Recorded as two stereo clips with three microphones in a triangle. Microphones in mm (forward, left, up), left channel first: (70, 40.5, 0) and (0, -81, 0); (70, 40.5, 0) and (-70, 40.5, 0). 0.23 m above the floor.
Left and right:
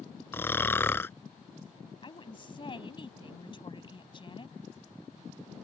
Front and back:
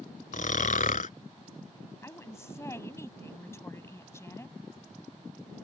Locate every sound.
0.3 s snoring: 15° right
2.0 s a woman speaking: 55° left